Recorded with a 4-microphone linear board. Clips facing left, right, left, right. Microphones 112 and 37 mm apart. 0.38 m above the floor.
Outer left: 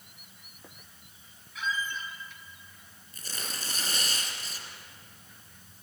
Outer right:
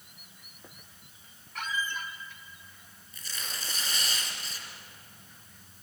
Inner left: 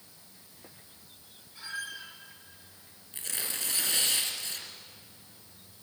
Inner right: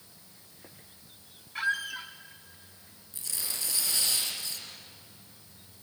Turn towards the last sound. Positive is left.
turn(degrees=50)  # may be behind; listen again after turning